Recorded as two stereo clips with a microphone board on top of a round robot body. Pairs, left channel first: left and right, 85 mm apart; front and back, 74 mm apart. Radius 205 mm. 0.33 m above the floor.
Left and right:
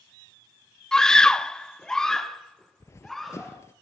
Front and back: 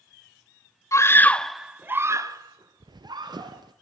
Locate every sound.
0.9 s a scream: 10° left, 1.6 m; by 3.6 s 175° left, 3.5 m
2.8 s running footsteps: 150° left, 0.7 m